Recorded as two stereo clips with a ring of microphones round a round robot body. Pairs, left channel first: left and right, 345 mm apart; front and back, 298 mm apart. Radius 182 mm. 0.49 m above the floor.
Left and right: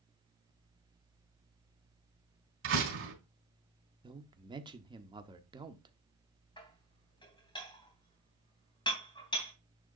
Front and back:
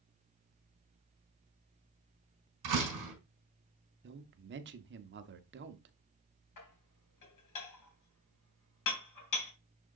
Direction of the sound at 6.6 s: 15° left.